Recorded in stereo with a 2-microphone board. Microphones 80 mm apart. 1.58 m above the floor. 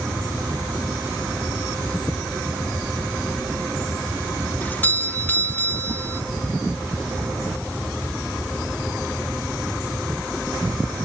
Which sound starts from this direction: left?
A doorbell, at 4.6 s.